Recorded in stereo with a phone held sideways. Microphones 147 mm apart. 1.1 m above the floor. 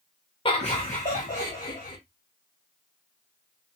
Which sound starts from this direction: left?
Laughter, at 0.5 s.